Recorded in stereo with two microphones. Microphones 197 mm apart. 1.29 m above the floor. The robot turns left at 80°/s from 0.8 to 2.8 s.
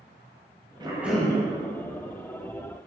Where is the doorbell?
No doorbell in this recording.